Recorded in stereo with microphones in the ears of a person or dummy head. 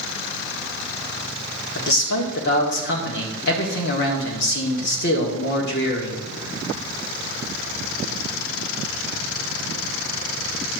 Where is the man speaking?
55° left (ahead or behind), 1.9 m.